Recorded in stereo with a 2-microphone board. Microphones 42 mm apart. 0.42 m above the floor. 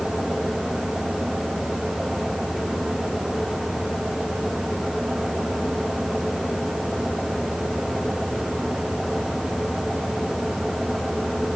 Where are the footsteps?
No footsteps in this recording.